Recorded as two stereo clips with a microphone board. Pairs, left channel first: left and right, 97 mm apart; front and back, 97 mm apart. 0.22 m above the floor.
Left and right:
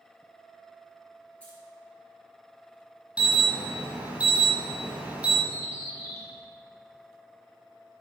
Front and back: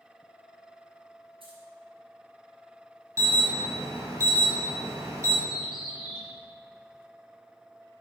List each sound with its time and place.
1.4 s keys jangling: 165° left, 2.5 m
3.2 s an alarm: 160° right, 1.5 m
5.5 s a bird: 35° left, 2.5 m